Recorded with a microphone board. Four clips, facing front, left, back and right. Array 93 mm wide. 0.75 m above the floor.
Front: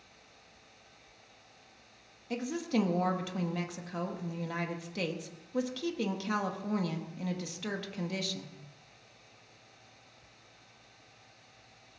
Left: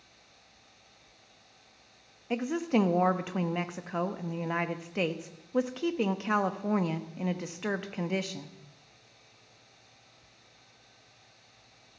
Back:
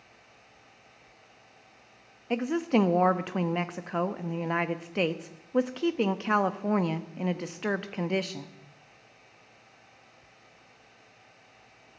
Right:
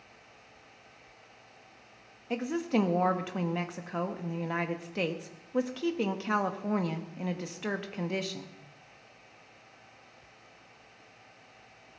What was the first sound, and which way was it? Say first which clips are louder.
A woman speaking: left 1 dB, back 6 dB; 170° left.